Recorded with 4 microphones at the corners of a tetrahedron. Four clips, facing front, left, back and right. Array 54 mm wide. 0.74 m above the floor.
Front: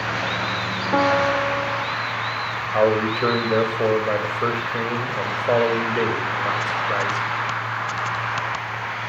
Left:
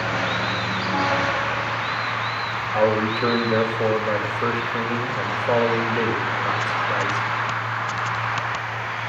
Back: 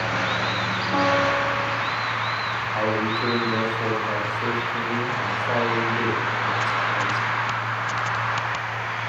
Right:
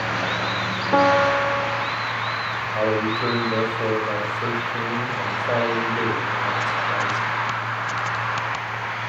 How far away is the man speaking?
About 3 m.